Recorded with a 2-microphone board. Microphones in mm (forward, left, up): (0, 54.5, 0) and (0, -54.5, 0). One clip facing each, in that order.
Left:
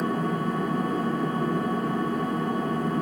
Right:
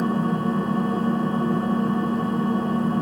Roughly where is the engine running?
Right.